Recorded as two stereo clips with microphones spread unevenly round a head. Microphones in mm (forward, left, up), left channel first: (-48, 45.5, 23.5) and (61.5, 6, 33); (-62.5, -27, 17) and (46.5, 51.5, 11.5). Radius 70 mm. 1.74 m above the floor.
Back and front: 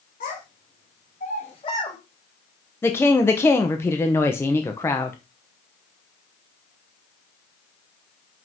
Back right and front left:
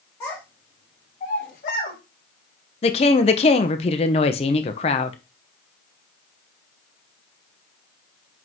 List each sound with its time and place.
0.2 s a child speaking: 145° left, 2 m; by 2.0 s 125° right, 1.7 m
2.8 s a woman speaking: 125° right, 0.8 m